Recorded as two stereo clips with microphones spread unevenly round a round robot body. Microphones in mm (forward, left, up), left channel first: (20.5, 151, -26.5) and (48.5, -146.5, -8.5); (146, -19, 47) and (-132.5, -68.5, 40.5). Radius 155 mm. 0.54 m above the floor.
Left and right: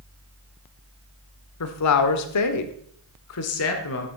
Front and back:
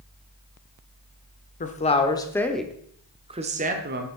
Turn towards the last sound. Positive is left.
turn(degrees=140)